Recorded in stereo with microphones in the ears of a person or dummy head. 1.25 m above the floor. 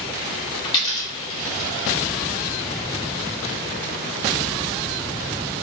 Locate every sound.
0.6 s a dropped coin: 25° left (ahead or behind), 0.8 m